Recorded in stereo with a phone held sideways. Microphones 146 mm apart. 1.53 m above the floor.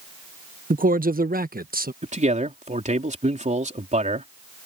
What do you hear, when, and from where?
0.7 s a man speaking: 70° right (ahead or behind); by 1.9 s 80° right
2.0 s a man speaking: 55° right (ahead or behind)